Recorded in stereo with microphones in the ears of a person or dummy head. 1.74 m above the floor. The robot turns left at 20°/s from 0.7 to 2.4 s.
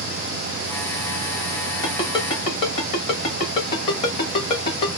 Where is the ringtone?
25° left (ahead or behind), 1.9 m; by 5.0 s 35° left (ahead or behind), 1.9 m.